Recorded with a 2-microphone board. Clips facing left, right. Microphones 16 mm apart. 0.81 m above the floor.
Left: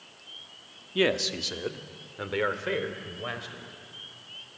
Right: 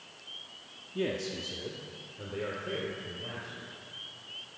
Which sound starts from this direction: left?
A man speaking, at 0.9 s.